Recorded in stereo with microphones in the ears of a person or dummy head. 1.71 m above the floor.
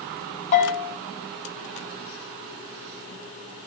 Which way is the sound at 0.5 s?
40° left (ahead or behind).